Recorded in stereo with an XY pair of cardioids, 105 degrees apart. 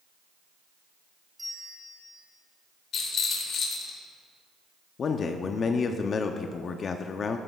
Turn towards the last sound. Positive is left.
turn(degrees=50)